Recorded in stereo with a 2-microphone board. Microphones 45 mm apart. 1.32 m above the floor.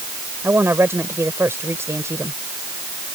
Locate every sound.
0.4 s a woman speaking: 60° right (ahead or behind); by 2.4 s 80° right